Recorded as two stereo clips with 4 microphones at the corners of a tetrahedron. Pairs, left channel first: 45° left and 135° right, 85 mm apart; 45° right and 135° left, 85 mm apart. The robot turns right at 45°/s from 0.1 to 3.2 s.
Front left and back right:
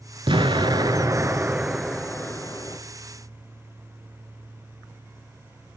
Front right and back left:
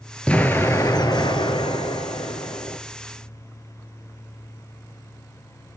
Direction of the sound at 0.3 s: 120° right.